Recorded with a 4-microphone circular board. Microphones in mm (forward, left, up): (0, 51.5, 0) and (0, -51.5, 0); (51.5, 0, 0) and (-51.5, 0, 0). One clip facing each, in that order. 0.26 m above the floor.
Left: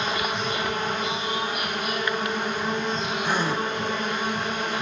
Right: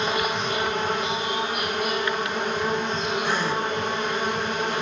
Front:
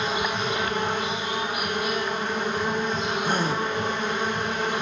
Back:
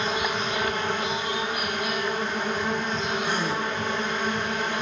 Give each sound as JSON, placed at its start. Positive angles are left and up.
{"t": 0.0, "sound": "an insect", "azimuth_deg": -70, "distance_m": 4.0}
{"t": 3.2, "sound": "a gasp", "azimuth_deg": 20, "distance_m": 1.0}